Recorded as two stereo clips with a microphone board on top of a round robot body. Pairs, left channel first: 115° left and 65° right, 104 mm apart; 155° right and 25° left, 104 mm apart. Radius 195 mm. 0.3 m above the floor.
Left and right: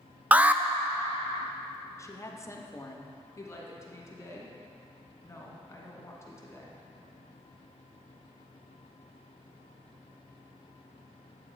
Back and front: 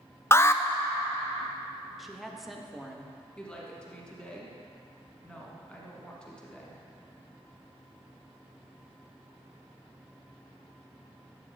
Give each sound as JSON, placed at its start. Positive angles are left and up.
{"t": 0.3, "sound": "an alarm", "azimuth_deg": -130, "distance_m": 0.5}
{"t": 2.0, "sound": "a woman speaking", "azimuth_deg": 110, "distance_m": 0.9}
{"t": 3.4, "sound": "a woman speaking", "azimuth_deg": 130, "distance_m": 1.5}